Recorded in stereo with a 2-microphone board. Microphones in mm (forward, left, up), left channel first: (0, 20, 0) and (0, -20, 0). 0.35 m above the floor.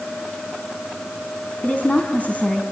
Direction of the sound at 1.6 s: 40° left (ahead or behind).